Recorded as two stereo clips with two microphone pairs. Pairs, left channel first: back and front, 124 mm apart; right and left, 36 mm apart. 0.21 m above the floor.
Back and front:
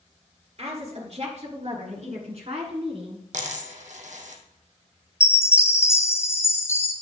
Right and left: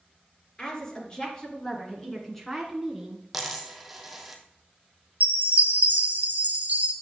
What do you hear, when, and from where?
0.6 s a woman speaking: 25° right, 4 m; by 3.2 s 15° left, 2 m
3.3 s a dropped coin: 10° left, 1.7 m
5.2 s a chime: 115° left, 1.7 m